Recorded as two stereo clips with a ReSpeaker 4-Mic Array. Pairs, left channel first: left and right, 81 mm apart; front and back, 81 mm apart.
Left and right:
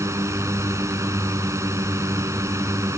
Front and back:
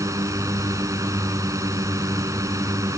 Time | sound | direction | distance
0.0 | a drone | 135° right | ?